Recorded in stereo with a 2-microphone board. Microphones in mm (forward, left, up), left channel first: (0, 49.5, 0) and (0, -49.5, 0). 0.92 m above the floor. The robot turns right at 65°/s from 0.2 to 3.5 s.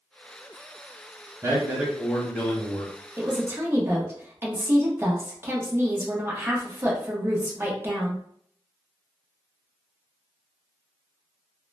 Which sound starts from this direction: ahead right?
A man speaking, at 1.4 s.